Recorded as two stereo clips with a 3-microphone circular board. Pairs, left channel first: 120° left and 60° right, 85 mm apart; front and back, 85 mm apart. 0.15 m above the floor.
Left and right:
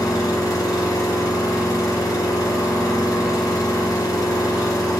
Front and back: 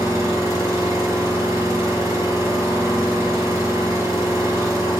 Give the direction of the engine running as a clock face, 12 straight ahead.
7 o'clock.